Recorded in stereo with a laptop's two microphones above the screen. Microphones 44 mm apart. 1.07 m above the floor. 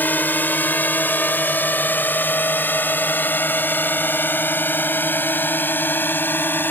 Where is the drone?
50° left (ahead or behind); by 6.7 s 55° left (ahead or behind).